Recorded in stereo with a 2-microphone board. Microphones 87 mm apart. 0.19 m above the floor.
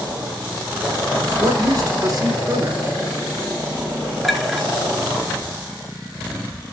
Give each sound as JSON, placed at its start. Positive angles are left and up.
{"t": 1.4, "sound": "a woman speaking", "side_deg": -45, "distance_m": 2.5}
{"t": 4.2, "sound": "a clink", "side_deg": 0, "distance_m": 1.6}